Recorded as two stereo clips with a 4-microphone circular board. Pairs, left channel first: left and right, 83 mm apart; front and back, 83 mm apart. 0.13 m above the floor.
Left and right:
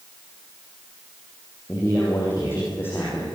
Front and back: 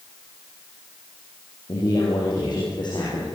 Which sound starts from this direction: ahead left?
A man speaking, at 1.7 s.